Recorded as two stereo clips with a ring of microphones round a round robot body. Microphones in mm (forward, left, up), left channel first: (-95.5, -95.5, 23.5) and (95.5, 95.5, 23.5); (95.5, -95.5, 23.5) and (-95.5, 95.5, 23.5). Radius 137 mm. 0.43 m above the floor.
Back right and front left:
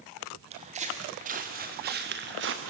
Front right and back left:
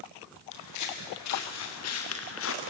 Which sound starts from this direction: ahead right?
Footsteps, at 0.5 s.